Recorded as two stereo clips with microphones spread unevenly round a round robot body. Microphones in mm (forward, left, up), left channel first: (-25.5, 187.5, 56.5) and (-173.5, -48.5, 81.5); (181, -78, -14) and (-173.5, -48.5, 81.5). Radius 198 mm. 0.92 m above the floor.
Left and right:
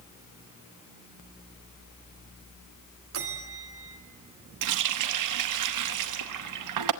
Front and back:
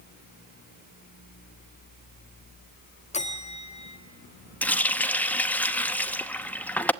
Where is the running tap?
90° right, 0.8 m.